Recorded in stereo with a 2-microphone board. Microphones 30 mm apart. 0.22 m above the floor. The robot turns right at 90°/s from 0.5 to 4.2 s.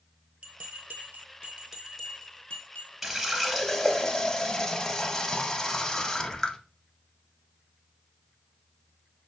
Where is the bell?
50° right (ahead or behind), 0.7 m; by 2.9 s 85° left, 0.7 m.